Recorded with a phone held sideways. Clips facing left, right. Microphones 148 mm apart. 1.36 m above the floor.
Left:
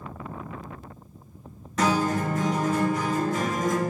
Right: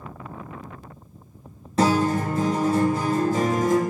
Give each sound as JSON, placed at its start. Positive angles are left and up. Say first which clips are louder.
{"t": 1.8, "sound": "a guitar", "louder": "right 3 dB", "side_deg": -30, "distance_m": 0.5}